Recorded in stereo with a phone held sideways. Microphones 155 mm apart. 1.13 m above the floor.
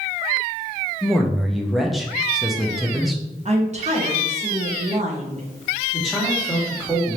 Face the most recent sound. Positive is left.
turn(degrees=0)  # may be behind; listen again after turning